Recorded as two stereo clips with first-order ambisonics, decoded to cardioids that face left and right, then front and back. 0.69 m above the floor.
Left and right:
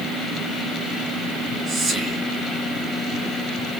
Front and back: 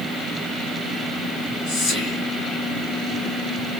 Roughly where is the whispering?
Ahead right.